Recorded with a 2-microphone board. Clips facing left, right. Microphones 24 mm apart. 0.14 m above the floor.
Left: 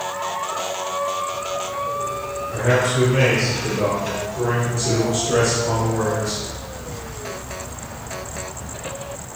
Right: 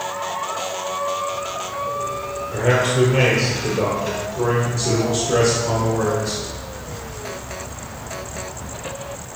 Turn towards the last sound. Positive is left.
turn(degrees=5)  # may be behind; listen again after turning